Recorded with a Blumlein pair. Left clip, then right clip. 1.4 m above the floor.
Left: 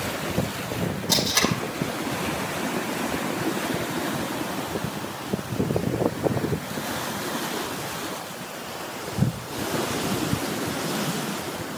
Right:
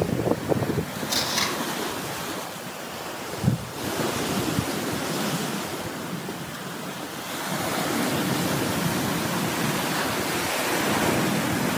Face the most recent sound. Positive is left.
turn(degrees=60)